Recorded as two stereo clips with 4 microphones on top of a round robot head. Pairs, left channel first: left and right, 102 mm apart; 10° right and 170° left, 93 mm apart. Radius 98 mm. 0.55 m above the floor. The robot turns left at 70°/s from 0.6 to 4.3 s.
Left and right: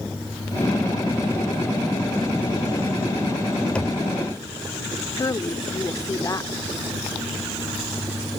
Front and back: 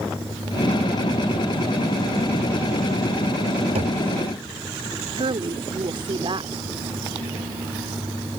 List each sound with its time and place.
3.8 s knocking: 170° left; by 4.0 s 155° left
5.2 s a woman speaking: 145° left